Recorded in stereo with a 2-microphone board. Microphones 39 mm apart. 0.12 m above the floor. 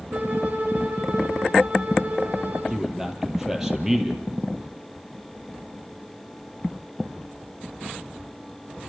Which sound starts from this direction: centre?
A man speaking, at 2.7 s.